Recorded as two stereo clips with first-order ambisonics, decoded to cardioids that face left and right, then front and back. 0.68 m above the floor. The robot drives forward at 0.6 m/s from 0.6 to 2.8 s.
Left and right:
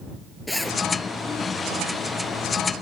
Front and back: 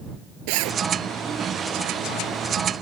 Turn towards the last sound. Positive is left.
turn(degrees=175)